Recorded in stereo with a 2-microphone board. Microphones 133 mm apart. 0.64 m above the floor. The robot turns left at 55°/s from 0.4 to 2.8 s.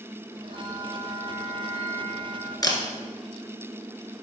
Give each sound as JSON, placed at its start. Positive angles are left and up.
{"t": 0.5, "sound": "a bell", "azimuth_deg": -145, "distance_m": 4.0}
{"t": 2.6, "sound": "a camera shutter", "side_deg": 30, "distance_m": 1.4}